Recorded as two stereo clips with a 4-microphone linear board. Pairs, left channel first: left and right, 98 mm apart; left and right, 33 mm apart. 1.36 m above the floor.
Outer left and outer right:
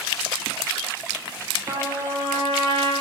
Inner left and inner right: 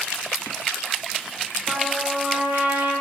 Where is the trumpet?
60° right (ahead or behind), 1.7 m.